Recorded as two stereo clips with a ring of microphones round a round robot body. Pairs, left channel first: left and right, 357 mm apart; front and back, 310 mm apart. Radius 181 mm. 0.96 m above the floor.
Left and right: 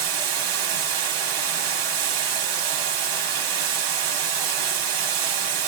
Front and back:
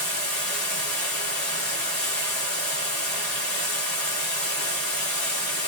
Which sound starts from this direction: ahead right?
Running water, at 0.0 s.